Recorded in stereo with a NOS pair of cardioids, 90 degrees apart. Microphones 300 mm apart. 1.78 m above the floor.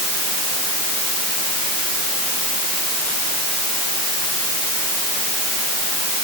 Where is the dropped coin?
I don't hear a dropped coin.